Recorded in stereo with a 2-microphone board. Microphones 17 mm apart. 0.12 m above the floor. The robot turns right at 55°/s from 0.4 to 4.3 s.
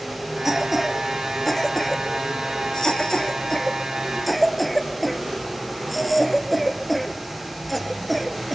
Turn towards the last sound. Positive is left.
turn(degrees=5)  # may be behind; listen again after turning